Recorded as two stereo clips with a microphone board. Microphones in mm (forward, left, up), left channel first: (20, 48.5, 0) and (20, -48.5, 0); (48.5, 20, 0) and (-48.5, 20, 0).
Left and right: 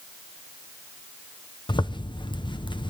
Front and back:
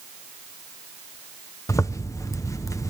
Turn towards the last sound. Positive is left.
turn(degrees=55)